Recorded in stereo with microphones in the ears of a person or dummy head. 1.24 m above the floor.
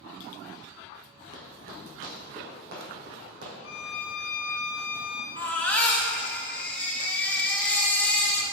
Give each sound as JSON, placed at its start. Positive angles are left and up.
{"t": 1.3, "sound": "running footsteps", "side_deg": -55, "distance_m": 2.0}
{"t": 3.6, "sound": "a violin", "side_deg": 75, "distance_m": 1.3}
{"t": 5.4, "sound": "a baby crying", "side_deg": 10, "distance_m": 0.9}